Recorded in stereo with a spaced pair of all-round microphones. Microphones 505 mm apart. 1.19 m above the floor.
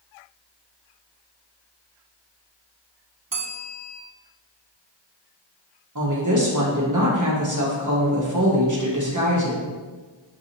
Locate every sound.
3.3 s a bell: 40° right (ahead or behind), 0.8 m
6.0 s a woman speaking: 35° right (ahead or behind), 1.2 m